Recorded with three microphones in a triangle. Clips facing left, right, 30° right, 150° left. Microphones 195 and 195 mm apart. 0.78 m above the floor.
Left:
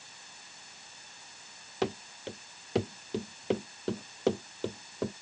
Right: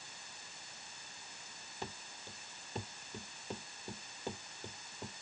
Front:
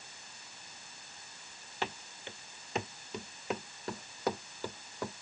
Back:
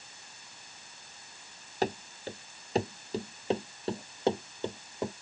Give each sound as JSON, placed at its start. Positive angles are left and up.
{"t": 1.8, "sound": "running footsteps", "azimuth_deg": 100}